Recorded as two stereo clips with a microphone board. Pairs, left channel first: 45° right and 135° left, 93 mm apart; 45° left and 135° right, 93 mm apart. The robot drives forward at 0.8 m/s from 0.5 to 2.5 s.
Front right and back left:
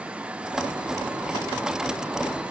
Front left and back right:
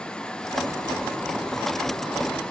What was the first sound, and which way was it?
Only background noise.